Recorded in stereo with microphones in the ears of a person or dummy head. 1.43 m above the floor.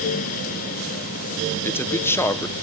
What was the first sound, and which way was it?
A man speaking, 15° left (ahead or behind).